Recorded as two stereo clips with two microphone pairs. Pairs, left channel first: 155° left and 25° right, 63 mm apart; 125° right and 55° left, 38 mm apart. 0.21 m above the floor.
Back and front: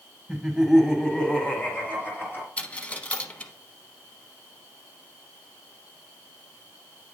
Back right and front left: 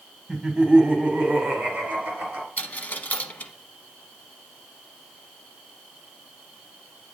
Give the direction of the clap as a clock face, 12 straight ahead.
No clap in this recording.